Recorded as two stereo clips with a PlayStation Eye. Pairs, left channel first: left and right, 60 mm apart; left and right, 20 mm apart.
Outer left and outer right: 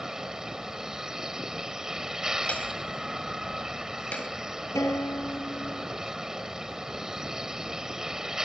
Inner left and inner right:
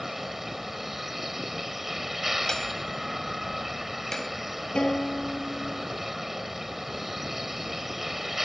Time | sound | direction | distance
0.0 | a vehicle | 10° right (ahead or behind) | ?
2.5 | hammering | 20° left (ahead or behind) | ?
4.8 | a guitar | 55° left (ahead or behind) | ?